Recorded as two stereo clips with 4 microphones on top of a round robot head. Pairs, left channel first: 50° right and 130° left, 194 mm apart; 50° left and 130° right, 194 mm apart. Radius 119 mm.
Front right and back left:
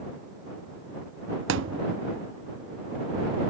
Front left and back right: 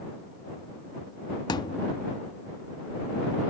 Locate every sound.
1.5 s a thud: 115° left